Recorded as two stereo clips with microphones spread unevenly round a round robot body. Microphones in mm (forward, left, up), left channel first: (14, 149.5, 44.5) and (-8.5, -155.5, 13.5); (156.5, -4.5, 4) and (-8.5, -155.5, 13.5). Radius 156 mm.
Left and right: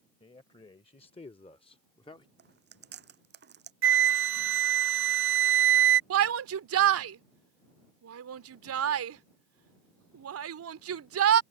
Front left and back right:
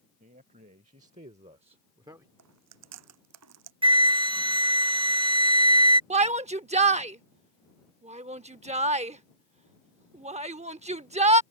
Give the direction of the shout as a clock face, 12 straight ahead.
3 o'clock.